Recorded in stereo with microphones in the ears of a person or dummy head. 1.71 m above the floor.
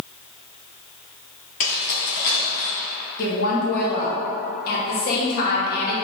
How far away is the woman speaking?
About 1.4 m.